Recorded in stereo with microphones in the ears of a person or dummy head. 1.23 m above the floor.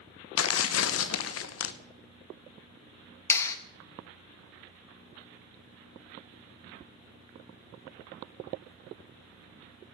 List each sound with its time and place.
0.4 s tearing paper: 70° left (ahead or behind), 0.8 m
3.3 s a clap: 15° left (ahead or behind), 1.1 m